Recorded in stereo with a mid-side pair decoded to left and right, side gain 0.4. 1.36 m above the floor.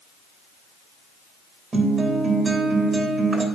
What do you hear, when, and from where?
1.7 s a guitar: 40° right, 2 m